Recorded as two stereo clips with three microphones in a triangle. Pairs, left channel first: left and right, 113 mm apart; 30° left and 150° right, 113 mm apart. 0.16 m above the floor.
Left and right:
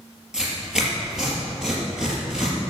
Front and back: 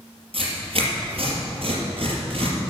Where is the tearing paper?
170° right, 4 m.